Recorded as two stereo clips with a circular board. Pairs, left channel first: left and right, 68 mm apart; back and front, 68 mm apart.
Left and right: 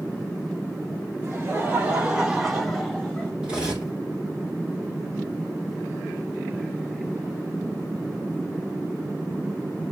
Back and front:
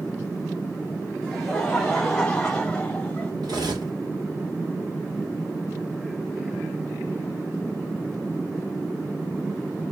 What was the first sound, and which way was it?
Laughter, 80° right.